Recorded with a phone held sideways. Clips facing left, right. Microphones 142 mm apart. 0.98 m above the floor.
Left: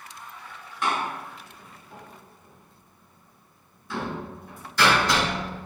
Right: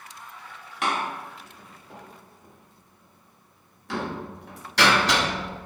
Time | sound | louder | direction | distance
0.8 | a door slam | even | 80° right | 0.9 m